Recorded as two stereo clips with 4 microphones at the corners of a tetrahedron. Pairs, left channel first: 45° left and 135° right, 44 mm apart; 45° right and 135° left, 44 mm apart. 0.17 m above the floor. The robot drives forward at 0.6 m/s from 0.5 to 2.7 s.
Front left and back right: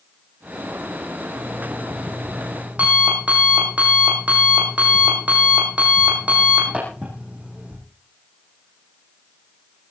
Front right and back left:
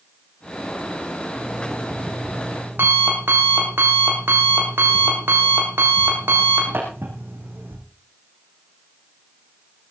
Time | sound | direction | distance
1.4 | an alarm clock | 165° left | 4.5 m